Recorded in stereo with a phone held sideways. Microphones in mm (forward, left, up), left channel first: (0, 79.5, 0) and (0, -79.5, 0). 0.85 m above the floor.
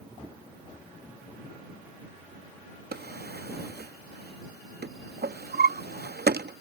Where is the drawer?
85° right.